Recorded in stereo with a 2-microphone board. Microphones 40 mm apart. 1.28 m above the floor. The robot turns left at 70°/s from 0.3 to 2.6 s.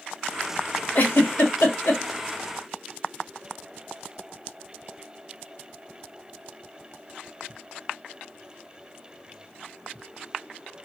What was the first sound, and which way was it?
A giggle, 55° left (ahead or behind).